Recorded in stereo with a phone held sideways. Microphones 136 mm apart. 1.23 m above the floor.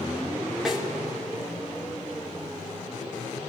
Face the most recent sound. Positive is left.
turn(degrees=0)  # may be behind; listen again after turning